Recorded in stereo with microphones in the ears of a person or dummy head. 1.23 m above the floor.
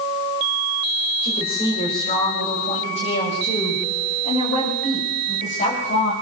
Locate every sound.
1.2 s a woman speaking: 35° left (ahead or behind), 7 m; by 6.1 s 50° left (ahead or behind), 8.5 m